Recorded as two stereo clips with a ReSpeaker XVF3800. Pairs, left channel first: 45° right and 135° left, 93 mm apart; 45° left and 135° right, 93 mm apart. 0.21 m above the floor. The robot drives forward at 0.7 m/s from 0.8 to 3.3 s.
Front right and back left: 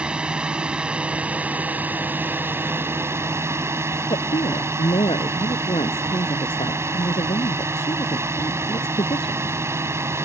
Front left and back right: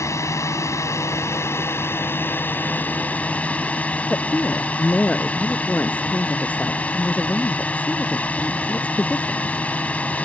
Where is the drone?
65° left; by 10.2 s 105° left.